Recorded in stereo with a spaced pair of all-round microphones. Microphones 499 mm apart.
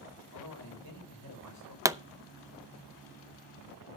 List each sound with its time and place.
0.3 s a man speaking: 35° left (ahead or behind), 5.5 m
1.9 s a pop: 5° right (ahead or behind), 0.6 m